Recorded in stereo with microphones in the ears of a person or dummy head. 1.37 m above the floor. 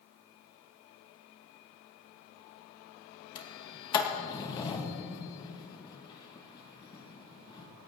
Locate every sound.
3.4 s a sliding door: 25° left (ahead or behind), 1.5 m